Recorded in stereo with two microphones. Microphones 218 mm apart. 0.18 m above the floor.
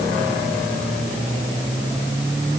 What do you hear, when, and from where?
Only background noise.